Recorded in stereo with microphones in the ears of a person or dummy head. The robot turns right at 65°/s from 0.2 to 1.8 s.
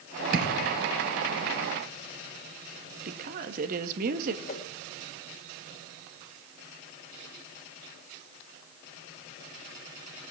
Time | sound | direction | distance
0.3 | a thud | 50° right (ahead or behind) | 3 m
3.0 | a woman speaking | 45° right (ahead or behind) | 1.5 m
4.5 | a whoosh | 40° left (ahead or behind) | 1.5 m